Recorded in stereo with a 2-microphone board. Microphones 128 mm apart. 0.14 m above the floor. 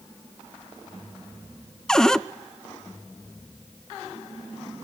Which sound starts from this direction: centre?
A cupboard door, at 1.9 s.